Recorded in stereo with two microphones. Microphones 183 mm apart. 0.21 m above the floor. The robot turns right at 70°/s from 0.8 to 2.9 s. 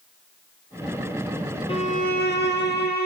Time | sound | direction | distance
1.7 | a violin | 30° left | 1.7 m